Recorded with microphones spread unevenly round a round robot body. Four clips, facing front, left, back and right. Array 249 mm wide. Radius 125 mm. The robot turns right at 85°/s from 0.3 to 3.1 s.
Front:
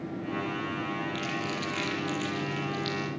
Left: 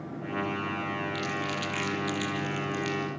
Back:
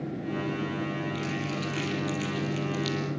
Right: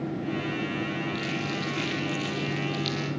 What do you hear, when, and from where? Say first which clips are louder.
1.1 s crumpling: right 1 dB, back 1 dB; 45° left, 5 m; by 3.0 s 160° right, 5 m